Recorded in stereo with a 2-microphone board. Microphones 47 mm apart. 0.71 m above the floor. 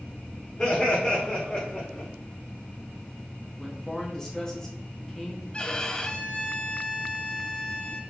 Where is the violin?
20° left (ahead or behind), 0.5 m.